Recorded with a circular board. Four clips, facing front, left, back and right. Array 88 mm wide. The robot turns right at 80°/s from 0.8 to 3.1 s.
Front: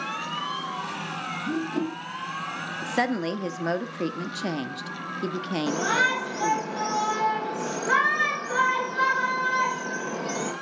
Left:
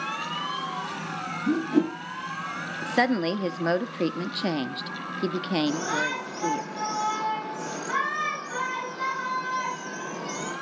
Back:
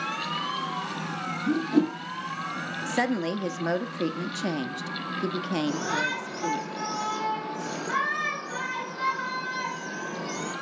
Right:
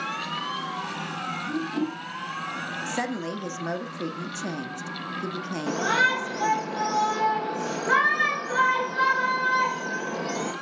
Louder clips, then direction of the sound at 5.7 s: Right 4 dB, front 4 dB; 45° right.